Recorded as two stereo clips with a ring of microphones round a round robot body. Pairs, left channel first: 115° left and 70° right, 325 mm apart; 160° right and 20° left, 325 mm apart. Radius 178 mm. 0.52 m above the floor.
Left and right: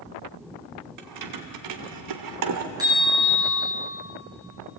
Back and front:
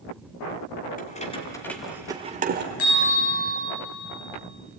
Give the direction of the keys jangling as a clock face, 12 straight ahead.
3 o'clock.